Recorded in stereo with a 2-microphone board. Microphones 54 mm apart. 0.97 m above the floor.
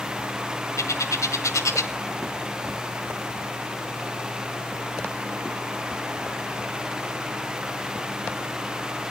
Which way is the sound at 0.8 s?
70° left (ahead or behind).